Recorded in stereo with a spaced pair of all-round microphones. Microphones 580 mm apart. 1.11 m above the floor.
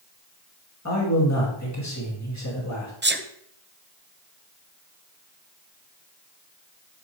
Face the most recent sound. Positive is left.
turn(degrees=-20)  # may be behind; listen again after turning